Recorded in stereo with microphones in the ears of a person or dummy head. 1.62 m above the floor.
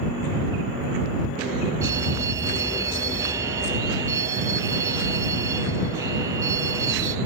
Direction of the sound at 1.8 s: 20° right (ahead or behind).